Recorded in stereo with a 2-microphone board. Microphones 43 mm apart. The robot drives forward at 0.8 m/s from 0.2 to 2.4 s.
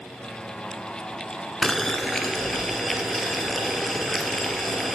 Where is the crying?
I don't hear crying.